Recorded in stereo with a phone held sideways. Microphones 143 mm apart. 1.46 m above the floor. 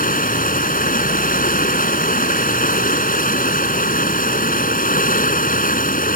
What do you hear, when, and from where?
0.0 s running water: 80° left